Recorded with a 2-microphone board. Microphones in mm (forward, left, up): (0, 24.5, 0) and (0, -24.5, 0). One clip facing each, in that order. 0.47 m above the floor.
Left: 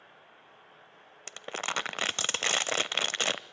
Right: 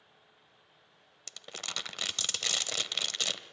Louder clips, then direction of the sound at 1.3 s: Left 8 dB; 40° left (ahead or behind).